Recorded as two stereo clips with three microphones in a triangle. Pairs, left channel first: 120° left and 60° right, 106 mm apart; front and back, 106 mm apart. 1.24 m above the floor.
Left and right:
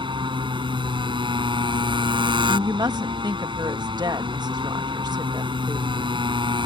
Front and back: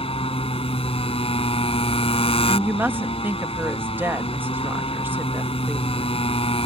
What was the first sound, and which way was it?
A motorcycle, 20° right.